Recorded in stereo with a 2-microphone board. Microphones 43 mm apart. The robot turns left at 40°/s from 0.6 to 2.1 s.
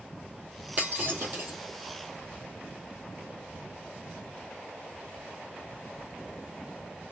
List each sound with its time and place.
0.8 s breaking glass: 35° right (ahead or behind), 2.5 m; by 1.6 s 70° right (ahead or behind), 2.5 m